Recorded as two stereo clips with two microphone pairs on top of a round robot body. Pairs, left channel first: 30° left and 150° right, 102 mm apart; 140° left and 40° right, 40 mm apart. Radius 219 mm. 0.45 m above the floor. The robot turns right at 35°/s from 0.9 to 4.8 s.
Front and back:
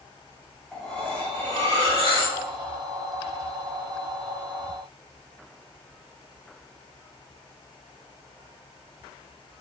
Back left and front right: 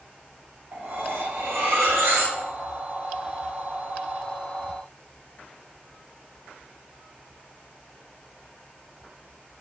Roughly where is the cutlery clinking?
Ahead right.